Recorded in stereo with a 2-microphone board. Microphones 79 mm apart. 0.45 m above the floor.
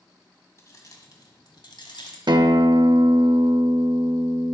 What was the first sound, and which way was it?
Keys jangling, 40° left (ahead or behind).